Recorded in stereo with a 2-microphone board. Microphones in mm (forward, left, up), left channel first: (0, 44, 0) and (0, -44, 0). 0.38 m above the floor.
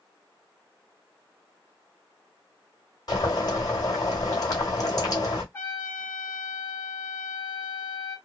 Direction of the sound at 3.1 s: 45° left (ahead or behind).